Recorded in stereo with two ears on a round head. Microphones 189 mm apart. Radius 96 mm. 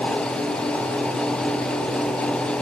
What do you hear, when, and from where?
Only background noise.